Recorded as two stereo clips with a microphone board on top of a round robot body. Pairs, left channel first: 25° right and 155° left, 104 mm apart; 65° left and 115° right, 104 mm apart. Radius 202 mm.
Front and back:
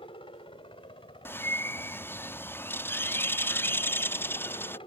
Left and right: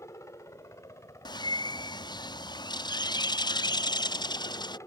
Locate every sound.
0.0 s a helicopter: 10° left
1.2 s a bird: 40° left